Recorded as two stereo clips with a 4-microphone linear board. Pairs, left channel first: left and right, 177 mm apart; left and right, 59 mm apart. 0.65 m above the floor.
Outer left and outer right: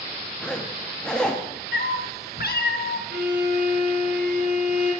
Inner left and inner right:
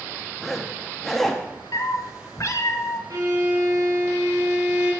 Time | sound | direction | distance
0.4 | a zipper | 5° left (ahead or behind) | 0.8 m
1.7 | a cat meowing | 65° left (ahead or behind) | 0.5 m
3.1 | a violin | 85° right | 2.5 m